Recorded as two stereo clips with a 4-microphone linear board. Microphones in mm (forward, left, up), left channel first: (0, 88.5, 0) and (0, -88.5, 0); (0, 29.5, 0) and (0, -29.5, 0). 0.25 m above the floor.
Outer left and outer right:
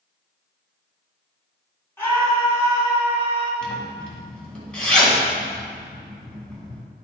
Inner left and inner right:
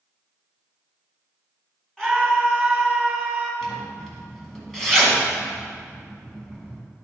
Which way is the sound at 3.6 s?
5° left (ahead or behind).